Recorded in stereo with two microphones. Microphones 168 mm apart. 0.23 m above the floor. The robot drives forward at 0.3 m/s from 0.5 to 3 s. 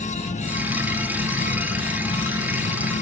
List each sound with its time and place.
0.0 s an insect: 65° left (ahead or behind), 3 m; by 3.0 s 80° left, 2.5 m